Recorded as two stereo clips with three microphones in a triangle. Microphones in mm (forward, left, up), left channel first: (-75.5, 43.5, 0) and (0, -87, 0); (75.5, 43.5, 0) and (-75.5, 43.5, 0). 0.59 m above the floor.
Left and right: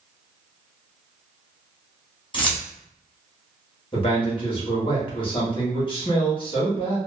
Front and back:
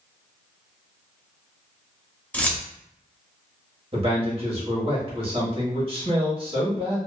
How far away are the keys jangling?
About 0.6 m.